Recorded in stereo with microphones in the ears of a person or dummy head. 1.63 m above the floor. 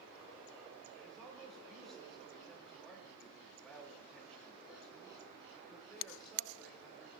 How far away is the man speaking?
About 4 m.